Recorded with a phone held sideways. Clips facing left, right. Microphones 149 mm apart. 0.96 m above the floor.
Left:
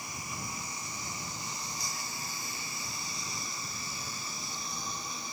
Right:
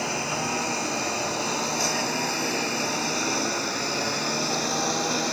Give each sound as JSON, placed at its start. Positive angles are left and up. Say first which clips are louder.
{"t": 0.0, "sound": "a lawn mower", "louder": "right 14 dB", "side_deg": -85}